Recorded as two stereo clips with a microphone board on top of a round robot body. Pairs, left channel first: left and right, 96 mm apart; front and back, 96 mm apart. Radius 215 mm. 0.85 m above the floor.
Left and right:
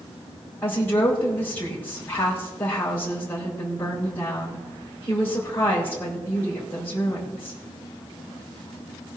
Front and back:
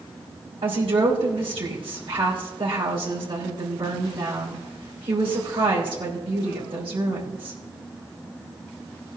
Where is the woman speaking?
160° left, 5.5 m.